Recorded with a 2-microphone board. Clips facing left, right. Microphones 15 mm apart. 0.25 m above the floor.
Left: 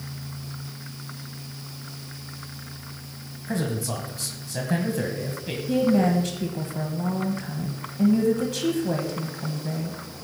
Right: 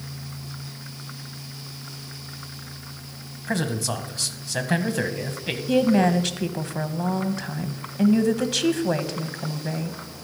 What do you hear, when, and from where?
3.5 s a man speaking: 35° right (ahead or behind), 1.6 m
5.7 s a woman speaking: 35° right (ahead or behind), 1.2 m